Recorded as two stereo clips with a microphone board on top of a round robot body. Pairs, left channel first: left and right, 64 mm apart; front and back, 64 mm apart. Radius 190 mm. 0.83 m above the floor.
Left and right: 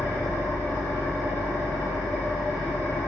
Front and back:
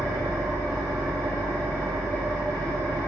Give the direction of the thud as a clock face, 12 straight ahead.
No thud in this recording.